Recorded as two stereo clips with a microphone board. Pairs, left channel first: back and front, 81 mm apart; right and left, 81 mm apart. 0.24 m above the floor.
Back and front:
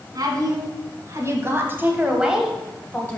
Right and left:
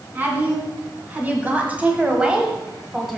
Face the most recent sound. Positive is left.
turn(degrees=175)